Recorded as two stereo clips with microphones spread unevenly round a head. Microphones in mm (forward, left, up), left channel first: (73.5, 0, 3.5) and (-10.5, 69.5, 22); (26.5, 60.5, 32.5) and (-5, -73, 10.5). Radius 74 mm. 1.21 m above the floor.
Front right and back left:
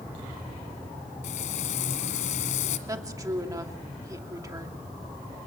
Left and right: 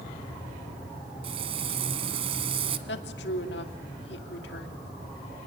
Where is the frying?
50° right, 1.7 m.